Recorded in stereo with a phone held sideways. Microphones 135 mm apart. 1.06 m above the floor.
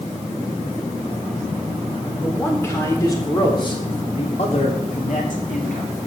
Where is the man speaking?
15° left (ahead or behind), 4 m; by 5.9 s 80° left, 3 m.